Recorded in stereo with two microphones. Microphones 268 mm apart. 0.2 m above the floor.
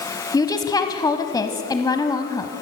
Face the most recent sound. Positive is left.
turn(degrees=15)  # may be behind; listen again after turning